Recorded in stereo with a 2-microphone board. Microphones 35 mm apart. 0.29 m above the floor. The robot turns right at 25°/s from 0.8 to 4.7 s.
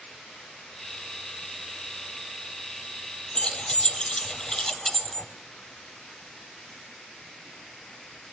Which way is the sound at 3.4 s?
30° left (ahead or behind).